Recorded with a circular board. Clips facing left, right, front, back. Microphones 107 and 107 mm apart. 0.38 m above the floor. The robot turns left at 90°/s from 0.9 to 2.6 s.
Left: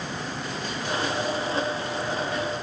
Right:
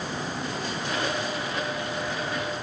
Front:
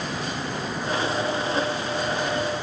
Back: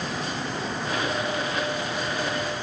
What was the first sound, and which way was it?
Only background noise.